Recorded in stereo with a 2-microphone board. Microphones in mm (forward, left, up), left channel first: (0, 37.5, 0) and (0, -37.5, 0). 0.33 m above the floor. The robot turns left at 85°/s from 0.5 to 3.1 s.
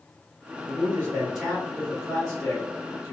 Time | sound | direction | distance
0.7 | a man speaking | 110° right | 1.3 m